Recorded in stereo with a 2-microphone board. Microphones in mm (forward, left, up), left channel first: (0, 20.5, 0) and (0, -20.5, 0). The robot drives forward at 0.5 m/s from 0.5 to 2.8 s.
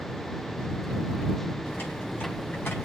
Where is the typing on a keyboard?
60° left (ahead or behind), 5 m; by 2.9 s 65° left (ahead or behind), 5 m.